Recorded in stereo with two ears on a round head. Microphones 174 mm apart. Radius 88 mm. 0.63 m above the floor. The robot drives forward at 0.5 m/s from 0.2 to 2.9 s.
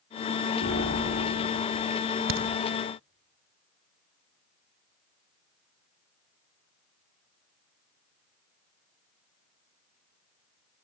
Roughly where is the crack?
Right.